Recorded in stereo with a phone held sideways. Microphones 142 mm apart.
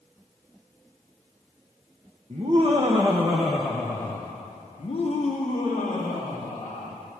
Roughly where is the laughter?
Right.